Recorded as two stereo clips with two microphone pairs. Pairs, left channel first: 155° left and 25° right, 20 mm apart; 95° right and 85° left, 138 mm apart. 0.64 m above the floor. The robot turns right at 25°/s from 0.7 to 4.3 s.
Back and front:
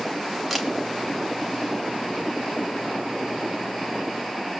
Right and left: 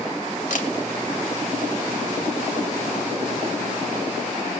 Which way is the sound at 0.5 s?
115° right.